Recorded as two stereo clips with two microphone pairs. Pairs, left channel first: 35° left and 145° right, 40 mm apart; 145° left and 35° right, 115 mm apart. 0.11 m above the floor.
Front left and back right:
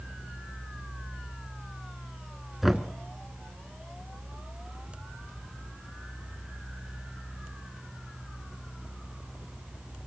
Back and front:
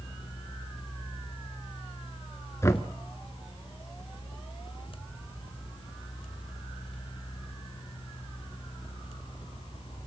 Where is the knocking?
130° left, 0.8 m.